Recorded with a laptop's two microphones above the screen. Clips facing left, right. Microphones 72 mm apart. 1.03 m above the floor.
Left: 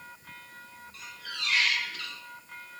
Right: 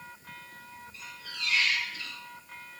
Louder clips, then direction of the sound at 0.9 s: Left 3 dB; 85° left.